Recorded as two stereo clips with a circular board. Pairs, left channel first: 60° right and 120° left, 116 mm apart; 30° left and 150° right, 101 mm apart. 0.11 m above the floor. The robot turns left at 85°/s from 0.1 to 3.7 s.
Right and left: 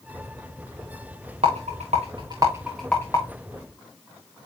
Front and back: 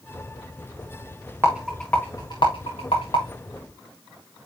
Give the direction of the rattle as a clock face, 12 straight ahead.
7 o'clock.